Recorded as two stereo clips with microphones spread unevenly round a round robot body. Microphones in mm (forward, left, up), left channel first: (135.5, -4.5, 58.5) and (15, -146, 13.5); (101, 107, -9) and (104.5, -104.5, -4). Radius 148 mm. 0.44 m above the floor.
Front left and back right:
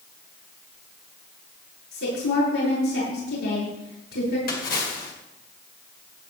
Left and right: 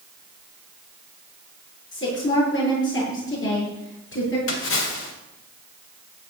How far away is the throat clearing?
I don't hear throat clearing.